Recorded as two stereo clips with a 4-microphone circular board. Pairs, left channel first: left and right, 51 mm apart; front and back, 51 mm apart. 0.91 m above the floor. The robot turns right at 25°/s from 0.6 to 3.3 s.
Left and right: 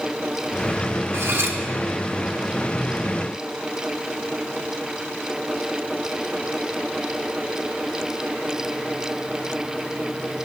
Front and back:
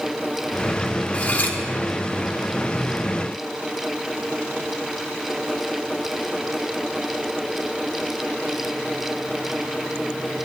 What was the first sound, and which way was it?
Cutlery clinking, 60° right.